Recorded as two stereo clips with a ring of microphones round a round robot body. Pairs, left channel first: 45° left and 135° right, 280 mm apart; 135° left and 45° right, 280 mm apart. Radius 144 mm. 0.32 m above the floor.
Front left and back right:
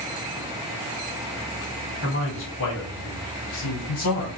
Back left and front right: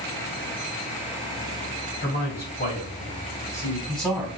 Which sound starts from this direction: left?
A man speaking, at 2.0 s.